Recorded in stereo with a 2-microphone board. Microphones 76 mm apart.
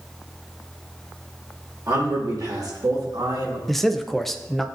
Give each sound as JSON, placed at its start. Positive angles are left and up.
{"t": 1.9, "sound": "a man speaking", "side_deg": -50, "distance_m": 3.0}
{"t": 3.7, "sound": "a man speaking", "side_deg": 0, "distance_m": 0.6}